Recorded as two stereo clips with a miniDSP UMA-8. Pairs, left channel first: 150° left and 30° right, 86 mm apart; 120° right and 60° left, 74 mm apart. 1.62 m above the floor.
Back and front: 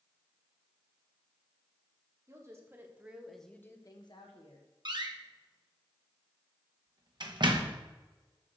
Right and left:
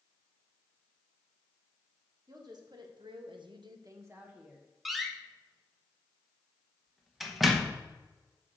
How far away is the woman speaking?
About 2 m.